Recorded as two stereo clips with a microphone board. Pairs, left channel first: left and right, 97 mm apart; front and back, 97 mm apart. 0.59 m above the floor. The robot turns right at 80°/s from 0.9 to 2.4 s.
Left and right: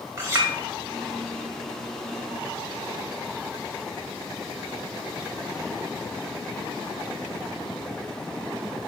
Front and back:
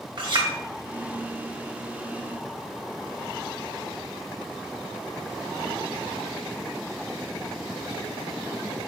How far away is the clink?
About 1.1 m.